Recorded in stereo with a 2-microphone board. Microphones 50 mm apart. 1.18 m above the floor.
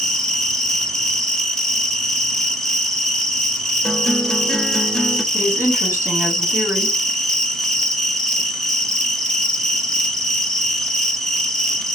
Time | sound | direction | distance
0.0 | an insect | 5° left (ahead or behind) | 0.8 m
3.8 | a guitar | 10° left (ahead or behind) | 0.5 m
5.3 | a woman speaking | 45° right (ahead or behind) | 2.5 m